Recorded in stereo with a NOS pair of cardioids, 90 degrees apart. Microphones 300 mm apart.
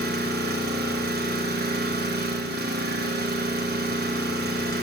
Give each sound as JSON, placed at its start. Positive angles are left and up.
{"t": 0.0, "sound": "an engine running", "azimuth_deg": -35, "distance_m": 1.2}